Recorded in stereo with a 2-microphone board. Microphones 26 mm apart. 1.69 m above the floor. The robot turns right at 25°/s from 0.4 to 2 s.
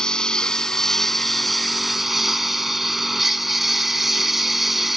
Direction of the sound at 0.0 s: 150° left.